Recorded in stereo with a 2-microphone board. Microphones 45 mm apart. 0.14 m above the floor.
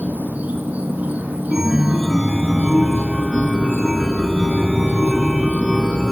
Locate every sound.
0.0 s an insect: 40° right (ahead or behind), 3.5 m
1.5 s a chime: 5° right (ahead or behind), 0.9 m